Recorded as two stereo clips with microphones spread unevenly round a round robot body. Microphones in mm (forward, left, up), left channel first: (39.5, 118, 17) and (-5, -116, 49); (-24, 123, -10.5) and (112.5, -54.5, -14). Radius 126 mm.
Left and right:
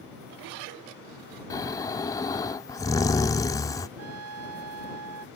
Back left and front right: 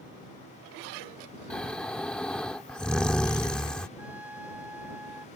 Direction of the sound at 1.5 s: 45° left.